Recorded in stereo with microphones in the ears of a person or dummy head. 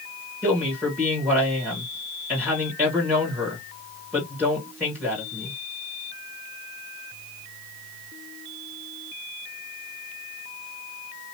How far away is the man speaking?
About 1.9 m.